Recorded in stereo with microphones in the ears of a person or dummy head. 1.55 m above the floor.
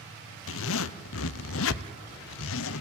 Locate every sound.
0.5 s a zipper: 75° left (ahead or behind), 0.6 m